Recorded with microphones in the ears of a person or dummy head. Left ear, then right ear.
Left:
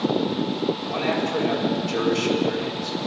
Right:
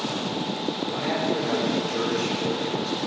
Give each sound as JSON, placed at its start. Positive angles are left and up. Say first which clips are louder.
{"t": 0.9, "sound": "a man speaking", "louder": "even", "side_deg": 80, "distance_m": 7.5}